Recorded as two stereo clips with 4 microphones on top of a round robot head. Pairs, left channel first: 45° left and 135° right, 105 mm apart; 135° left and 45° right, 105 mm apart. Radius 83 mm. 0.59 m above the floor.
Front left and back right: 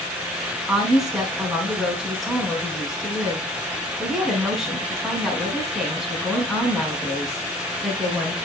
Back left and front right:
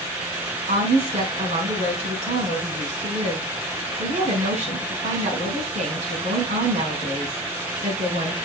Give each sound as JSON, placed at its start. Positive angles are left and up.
{"t": 0.7, "sound": "a woman speaking", "azimuth_deg": -45, "distance_m": 6.0}